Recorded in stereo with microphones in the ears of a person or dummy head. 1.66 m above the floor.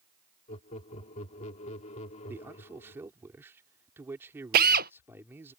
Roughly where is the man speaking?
Centre.